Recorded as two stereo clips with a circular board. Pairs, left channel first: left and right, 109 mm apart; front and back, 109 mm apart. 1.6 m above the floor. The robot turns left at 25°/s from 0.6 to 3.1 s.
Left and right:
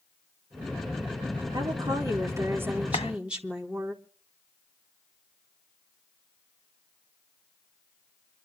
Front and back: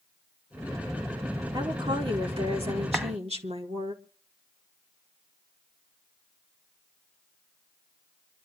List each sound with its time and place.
1.5 s a woman speaking: 130° right, 4 m; by 3.9 s 170° right, 4 m
2.9 s a clap: 90° left, 1.5 m; by 3.1 s 85° left, 1.5 m